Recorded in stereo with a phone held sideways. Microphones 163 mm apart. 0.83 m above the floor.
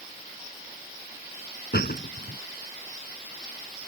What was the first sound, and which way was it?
A door slam, 75° left (ahead or behind).